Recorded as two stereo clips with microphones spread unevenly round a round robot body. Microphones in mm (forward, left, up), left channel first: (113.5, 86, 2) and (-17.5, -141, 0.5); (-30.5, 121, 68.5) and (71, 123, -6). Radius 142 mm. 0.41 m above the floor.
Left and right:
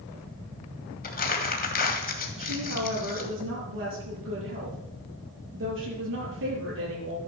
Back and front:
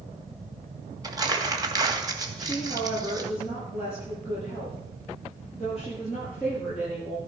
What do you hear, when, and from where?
1.0 s crumpling: 5° left, 2.5 m
2.4 s a woman speaking: 80° right, 8.5 m